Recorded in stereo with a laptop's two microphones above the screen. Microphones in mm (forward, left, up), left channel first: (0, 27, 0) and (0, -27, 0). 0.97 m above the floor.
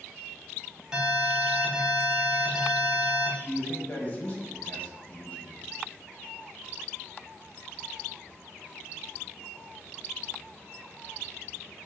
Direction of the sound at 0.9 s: 15° right (ahead or behind).